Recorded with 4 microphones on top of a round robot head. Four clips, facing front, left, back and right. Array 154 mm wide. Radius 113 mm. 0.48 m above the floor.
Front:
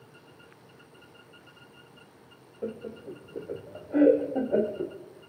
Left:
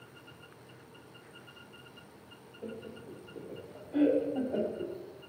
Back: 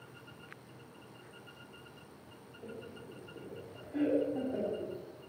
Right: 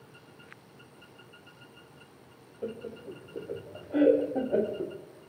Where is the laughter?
30° right, 2.5 m.